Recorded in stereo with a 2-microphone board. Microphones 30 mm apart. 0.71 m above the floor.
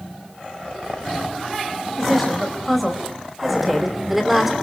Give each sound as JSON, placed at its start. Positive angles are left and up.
{"t": 1.9, "sound": "a woman speaking", "side_deg": 0, "distance_m": 5.0}